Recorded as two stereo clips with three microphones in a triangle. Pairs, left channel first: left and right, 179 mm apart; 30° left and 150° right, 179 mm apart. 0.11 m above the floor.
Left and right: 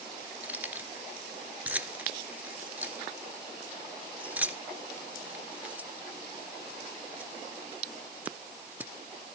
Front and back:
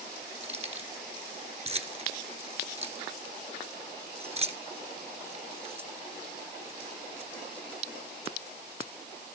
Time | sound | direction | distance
0.4 | keys jangling | 165° right | 1.4 m